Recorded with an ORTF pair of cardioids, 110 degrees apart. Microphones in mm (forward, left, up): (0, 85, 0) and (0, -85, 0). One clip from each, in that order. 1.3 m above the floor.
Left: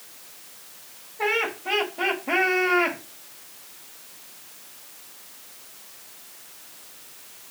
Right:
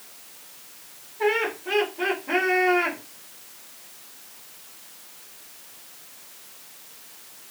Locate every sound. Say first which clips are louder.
1.2 s laughter: right 1 dB; 45° left, 2.0 m